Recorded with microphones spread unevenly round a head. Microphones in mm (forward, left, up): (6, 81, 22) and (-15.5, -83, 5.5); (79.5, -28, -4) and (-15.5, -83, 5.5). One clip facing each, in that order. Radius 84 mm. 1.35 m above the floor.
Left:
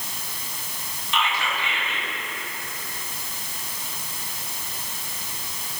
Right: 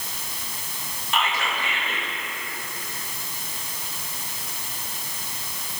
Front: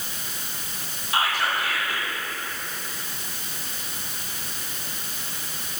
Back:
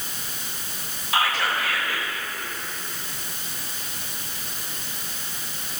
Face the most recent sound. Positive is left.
turn(degrees=-145)